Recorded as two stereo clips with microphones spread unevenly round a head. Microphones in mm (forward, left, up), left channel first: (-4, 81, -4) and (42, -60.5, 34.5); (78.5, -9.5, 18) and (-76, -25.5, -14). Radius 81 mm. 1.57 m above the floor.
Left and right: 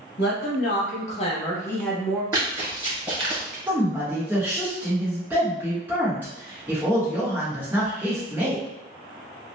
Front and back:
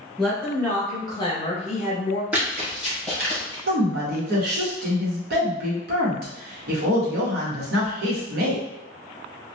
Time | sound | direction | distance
0.2 | a woman speaking | 90° left | 1.1 m
2.3 | running footsteps | 85° right | 1.7 m
3.7 | a woman speaking | 150° right | 1.0 m